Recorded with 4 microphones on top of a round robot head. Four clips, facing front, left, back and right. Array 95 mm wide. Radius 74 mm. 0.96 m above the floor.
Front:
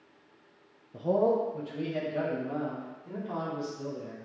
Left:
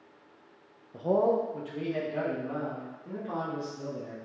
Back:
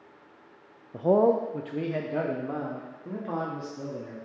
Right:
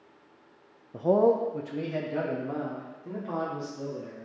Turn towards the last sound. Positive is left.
turn(degrees=-165)